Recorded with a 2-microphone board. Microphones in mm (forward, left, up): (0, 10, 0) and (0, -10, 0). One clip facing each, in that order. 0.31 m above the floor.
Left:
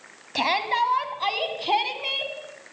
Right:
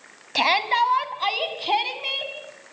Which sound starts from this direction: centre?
A shout, at 0.3 s.